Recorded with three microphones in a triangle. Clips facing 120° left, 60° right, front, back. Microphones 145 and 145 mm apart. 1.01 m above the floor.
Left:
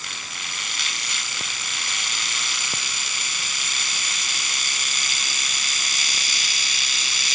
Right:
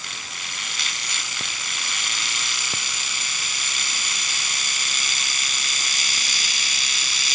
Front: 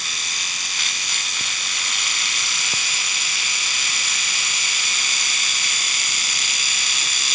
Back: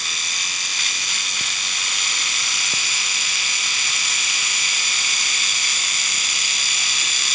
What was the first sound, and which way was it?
Only background noise.